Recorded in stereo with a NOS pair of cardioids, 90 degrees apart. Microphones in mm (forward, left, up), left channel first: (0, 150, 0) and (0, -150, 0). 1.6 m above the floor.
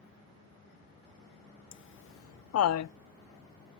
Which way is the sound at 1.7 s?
45° left.